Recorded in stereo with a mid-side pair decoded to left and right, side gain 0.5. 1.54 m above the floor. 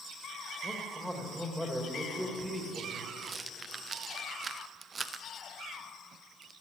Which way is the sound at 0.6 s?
5° left.